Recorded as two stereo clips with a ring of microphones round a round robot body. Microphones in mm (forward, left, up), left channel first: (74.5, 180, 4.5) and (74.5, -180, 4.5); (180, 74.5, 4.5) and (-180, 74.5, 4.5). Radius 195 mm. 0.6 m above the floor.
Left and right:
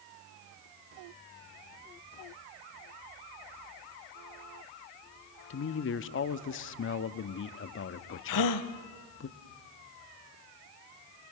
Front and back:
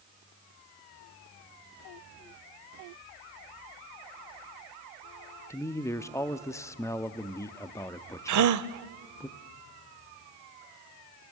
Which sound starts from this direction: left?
A man speaking, at 5.5 s.